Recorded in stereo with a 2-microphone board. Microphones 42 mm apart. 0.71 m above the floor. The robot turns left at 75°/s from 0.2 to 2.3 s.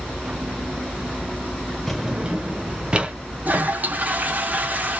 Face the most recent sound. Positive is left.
turn(degrees=-40)  # may be behind; listen again after turning